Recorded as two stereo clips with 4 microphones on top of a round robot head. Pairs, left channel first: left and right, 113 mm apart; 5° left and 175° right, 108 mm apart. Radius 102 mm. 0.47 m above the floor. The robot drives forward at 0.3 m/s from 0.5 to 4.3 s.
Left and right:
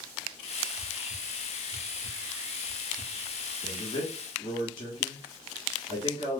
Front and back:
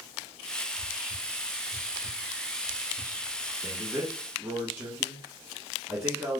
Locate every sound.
0.7 s whispering: 115° left, 1.5 m; by 3.5 s 140° left, 2.0 m
3.6 s a man speaking: 115° left, 1.6 m; by 6.4 s 125° left, 1.7 m